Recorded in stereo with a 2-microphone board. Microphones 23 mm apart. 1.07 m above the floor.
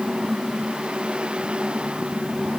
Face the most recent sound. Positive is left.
No sound to turn to.